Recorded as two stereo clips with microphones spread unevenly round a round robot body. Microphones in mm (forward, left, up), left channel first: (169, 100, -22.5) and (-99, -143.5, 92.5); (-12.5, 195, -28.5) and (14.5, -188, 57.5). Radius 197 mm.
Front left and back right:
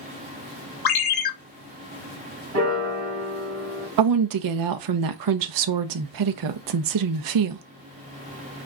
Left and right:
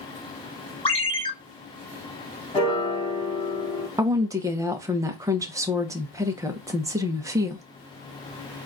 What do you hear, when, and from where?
0.8 s a ringtone: 20° left, 1.0 m
2.5 s a piano: 170° left, 1.7 m
4.0 s a woman speaking: straight behind, 0.5 m